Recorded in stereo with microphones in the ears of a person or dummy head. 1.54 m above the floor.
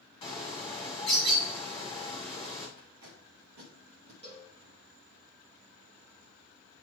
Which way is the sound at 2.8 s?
55° right (ahead or behind).